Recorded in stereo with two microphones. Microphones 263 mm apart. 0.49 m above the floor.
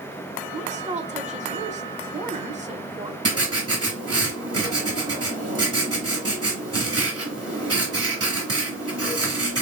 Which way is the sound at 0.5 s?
25° right (ahead or behind).